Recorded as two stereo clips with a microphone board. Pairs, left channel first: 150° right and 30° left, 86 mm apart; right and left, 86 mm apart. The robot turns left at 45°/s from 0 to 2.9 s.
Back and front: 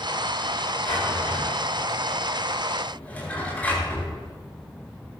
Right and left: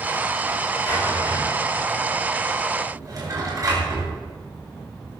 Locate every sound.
0.8 s a drawer: 130° right, 7 m; by 4.1 s 135° left, 7 m